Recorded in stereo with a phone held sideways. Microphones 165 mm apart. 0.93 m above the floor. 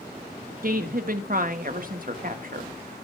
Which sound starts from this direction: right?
A woman speaking, at 0.6 s.